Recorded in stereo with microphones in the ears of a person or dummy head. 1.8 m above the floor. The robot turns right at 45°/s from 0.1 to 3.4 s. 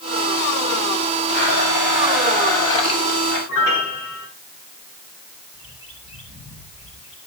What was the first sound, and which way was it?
A blender, 35° right.